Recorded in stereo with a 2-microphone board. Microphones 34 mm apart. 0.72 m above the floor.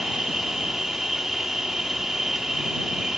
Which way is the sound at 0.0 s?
20° right (ahead or behind).